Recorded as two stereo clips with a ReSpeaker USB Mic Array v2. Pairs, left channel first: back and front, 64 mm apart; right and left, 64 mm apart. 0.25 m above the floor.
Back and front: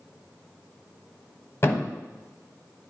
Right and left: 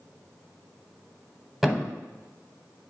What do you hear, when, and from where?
1.6 s a thud: 175° left, 0.8 m